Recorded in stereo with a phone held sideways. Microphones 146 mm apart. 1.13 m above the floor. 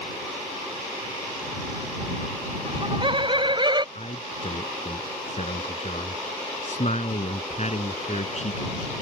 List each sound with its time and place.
2.6 s laughter: 35° right (ahead or behind)
4.0 s a man speaking: 50° left (ahead or behind)